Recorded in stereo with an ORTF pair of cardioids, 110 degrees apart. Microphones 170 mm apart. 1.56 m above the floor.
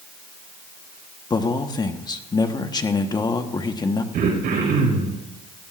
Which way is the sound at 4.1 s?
65° right.